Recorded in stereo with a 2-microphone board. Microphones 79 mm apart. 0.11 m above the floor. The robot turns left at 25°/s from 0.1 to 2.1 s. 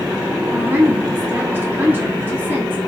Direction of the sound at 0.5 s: 25° right (ahead or behind).